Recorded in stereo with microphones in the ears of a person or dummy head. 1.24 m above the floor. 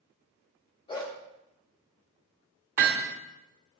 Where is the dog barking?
25° left (ahead or behind), 1.4 m.